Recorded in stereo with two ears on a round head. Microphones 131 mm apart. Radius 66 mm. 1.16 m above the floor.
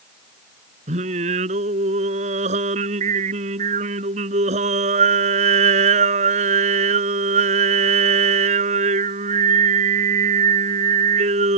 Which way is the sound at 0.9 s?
50° right (ahead or behind).